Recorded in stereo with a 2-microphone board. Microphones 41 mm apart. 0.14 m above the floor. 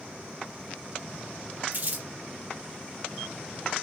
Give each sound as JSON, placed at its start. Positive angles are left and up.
{"t": 1.7, "sound": "crumpling", "side_deg": -45, "distance_m": 2.0}